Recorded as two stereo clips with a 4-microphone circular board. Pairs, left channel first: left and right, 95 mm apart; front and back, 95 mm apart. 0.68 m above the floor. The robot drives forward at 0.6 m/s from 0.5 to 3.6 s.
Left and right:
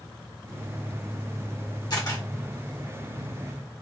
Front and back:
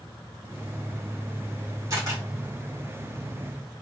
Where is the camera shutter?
130° left, 2 m; by 2.2 s 135° left, 2.5 m.